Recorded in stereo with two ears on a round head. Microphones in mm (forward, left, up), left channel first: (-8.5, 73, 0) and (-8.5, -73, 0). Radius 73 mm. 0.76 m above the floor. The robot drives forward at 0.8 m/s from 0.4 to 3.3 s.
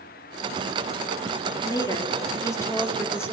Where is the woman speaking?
25° left (ahead or behind), 1.9 m; by 3.3 s 15° left (ahead or behind), 3 m.